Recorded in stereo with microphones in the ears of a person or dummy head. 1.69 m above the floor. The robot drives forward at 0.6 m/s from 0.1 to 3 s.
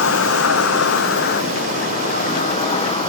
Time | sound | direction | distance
0.0 | an insect | 75° left (ahead or behind) | ?